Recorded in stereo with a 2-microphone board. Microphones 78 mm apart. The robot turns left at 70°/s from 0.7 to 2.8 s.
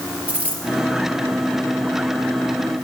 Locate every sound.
0.3 s a dropped coin: 20° right (ahead or behind), 3.5 m